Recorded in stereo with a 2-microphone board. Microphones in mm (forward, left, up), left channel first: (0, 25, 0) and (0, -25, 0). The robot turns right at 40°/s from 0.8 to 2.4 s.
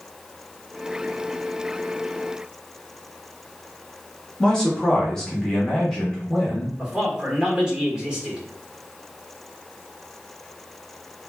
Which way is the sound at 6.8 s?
15° right (ahead or behind).